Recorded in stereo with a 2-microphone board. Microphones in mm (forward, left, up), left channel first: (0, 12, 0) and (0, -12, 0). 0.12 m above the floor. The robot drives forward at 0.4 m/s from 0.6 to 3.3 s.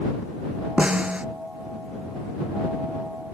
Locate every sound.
0.8 s a snare drum: 45° right (ahead or behind)